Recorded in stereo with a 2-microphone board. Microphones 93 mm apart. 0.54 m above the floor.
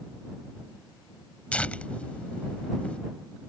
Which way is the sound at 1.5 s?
15° left (ahead or behind).